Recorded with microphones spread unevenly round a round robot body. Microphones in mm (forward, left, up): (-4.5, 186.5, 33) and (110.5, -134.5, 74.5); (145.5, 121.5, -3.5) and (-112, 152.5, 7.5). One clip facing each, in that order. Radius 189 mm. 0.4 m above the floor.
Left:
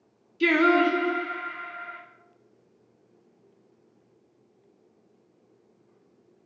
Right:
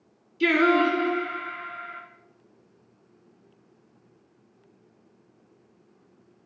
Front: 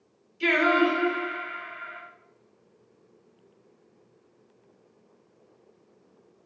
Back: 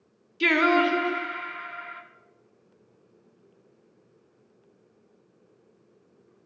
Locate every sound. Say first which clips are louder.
0.4 s singing: even, back 1 dB; 170° right, 0.6 m